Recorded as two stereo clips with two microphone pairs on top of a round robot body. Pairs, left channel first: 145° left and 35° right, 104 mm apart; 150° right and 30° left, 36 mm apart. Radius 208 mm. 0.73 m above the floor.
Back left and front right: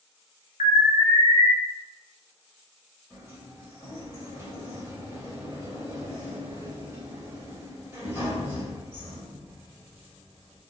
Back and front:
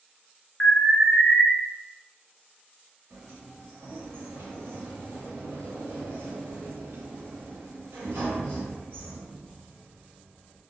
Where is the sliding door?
30° left, 1.2 m.